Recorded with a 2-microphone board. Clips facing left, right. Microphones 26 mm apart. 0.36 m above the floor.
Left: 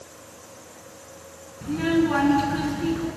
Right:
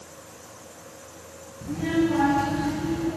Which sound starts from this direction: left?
A child speaking, at 1.6 s.